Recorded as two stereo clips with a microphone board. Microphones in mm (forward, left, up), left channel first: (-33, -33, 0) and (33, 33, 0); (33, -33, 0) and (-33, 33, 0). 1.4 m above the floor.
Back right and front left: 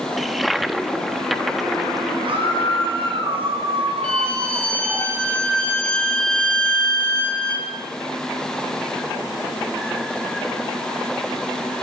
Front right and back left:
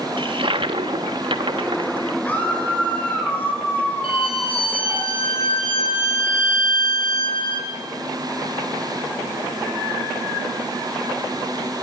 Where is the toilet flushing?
135° left, 1.3 m.